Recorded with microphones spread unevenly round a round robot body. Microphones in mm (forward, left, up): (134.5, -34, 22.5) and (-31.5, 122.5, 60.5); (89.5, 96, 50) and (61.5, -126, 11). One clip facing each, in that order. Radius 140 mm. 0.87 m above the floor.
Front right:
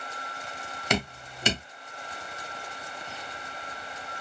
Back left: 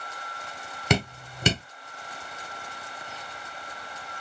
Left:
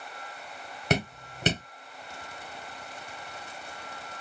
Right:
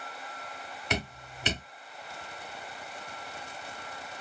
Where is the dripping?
140° left, 1.3 m.